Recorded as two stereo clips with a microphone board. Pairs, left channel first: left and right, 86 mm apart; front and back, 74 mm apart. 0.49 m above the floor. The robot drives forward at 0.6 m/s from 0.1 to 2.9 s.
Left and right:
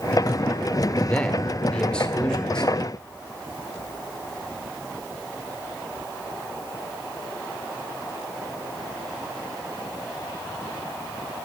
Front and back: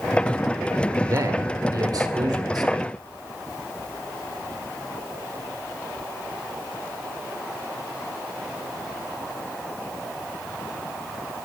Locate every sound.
1.0 s a man speaking: 160° left, 1.5 m; by 2.7 s 170° left, 2.5 m